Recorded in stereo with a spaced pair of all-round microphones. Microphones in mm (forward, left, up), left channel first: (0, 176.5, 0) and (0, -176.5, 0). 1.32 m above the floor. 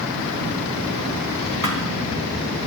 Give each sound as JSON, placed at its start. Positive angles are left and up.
{"t": 1.6, "sound": "a thud", "side_deg": 60, "distance_m": 3.0}